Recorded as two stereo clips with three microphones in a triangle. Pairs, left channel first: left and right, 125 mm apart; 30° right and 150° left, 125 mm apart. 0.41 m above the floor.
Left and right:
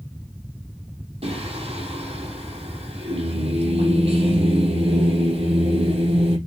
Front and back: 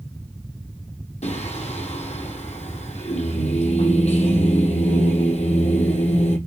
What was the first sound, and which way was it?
Singing, 55° right.